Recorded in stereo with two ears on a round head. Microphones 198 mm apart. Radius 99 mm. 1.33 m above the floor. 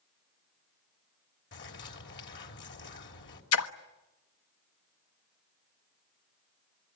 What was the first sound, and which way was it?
A bird, 55° left (ahead or behind).